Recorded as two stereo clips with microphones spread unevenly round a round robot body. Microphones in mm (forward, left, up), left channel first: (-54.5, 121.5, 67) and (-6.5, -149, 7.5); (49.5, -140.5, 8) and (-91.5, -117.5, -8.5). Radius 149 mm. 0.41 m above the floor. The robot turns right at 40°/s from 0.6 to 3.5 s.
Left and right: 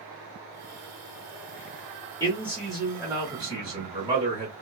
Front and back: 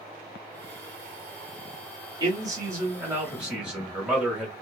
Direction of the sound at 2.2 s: 170° right.